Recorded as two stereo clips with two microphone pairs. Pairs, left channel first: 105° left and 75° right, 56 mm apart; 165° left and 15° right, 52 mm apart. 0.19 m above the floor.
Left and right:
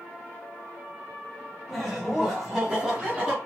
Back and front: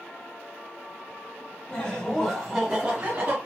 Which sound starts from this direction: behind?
Laughter, at 1.7 s.